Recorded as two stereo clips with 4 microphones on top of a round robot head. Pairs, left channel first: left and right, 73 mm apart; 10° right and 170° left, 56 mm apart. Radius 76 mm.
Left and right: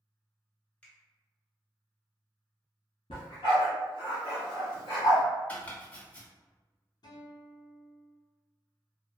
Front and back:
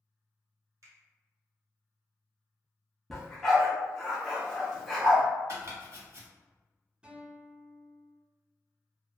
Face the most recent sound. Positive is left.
turn(degrees=100)